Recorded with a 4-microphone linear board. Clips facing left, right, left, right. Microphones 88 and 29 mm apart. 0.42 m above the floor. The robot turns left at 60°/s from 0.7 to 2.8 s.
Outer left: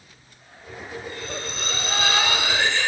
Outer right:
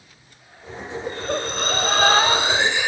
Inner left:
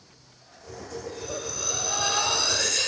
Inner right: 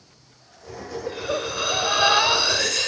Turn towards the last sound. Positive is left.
turn(degrees=-160)